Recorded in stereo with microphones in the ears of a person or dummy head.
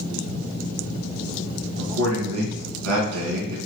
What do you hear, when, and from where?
1.8 s a man speaking: 85° right, 1.9 m